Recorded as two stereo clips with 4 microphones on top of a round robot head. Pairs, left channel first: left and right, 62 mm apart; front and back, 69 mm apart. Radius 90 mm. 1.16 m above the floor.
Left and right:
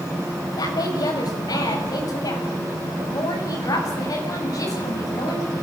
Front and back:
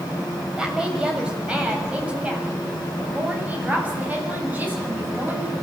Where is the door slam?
No door slam in this recording.